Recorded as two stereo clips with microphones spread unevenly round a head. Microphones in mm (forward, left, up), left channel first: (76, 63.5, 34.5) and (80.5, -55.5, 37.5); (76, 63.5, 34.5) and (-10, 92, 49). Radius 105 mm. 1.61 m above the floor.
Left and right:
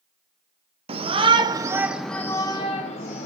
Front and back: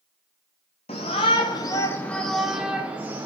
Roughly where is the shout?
Ahead right.